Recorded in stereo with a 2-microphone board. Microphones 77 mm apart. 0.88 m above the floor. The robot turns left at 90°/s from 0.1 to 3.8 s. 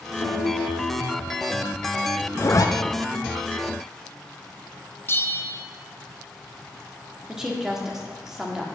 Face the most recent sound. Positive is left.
turn(degrees=-5)  # may be behind; listen again after turning